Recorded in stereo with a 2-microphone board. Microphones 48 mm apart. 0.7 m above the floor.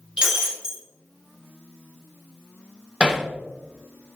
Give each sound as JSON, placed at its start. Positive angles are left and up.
{"t": 0.2, "sound": "breaking glass", "side_deg": -20, "distance_m": 3.0}
{"t": 3.0, "sound": "hammering", "side_deg": -30, "distance_m": 1.4}